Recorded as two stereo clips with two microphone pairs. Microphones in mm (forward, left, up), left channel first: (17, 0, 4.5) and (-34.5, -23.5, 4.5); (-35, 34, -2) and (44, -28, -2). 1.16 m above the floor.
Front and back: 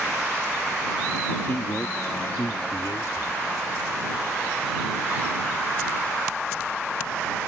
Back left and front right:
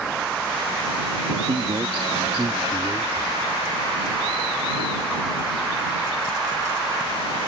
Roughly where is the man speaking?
Ahead.